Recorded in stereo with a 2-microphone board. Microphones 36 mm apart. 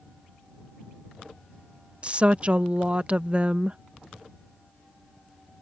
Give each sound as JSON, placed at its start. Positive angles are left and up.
{"t": 2.0, "sound": "a woman speaking", "side_deg": -35}